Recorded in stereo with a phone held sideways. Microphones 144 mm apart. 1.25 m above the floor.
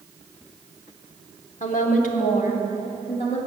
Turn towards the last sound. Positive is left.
turn(degrees=45)  # may be behind; listen again after turning